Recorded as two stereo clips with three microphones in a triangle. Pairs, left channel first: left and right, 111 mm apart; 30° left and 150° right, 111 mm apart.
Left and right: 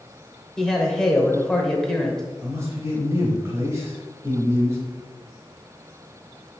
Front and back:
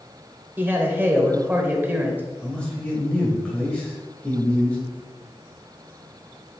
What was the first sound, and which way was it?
A man speaking, 165° left.